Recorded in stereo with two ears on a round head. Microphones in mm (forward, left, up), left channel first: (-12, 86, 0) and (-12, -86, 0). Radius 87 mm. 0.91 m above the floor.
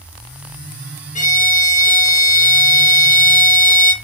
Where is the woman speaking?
I don't hear a woman speaking.